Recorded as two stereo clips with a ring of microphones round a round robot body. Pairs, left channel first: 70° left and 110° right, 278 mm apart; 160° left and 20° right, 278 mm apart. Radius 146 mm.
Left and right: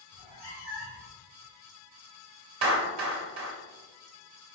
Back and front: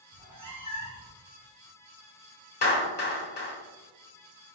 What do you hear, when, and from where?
0.1 s a cat meowing: 50° left, 1.9 m
2.6 s a clap: 150° right, 1.4 m